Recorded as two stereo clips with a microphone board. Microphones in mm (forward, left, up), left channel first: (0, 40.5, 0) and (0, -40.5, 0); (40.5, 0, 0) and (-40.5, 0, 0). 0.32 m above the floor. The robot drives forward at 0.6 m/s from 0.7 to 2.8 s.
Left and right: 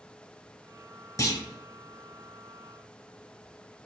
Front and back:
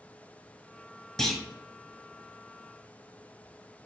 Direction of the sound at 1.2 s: 80° left.